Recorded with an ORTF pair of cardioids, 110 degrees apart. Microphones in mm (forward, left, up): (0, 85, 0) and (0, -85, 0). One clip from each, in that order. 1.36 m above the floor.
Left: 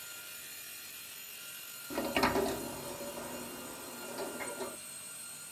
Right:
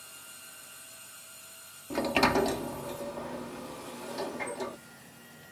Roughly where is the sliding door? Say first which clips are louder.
Right 5 dB; ahead right.